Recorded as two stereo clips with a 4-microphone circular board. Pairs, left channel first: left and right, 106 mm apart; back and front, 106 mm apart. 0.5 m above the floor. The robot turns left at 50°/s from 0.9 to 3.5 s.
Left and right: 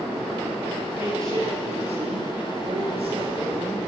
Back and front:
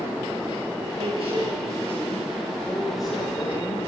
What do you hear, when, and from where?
1.0 s a man speaking: 20° right, 9.5 m; by 3.9 s 145° right, 9.5 m